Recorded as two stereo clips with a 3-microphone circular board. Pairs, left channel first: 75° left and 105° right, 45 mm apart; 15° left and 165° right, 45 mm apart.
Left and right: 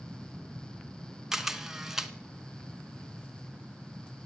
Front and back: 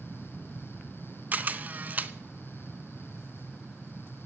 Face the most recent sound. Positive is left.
turn(degrees=175)